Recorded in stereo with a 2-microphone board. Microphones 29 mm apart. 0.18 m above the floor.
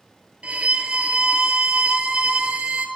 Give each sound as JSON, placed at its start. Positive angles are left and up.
{"t": 0.4, "sound": "a violin", "side_deg": -55, "distance_m": 0.5}